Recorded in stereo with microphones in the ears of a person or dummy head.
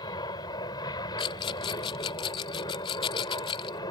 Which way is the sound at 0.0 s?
20° left (ahead or behind).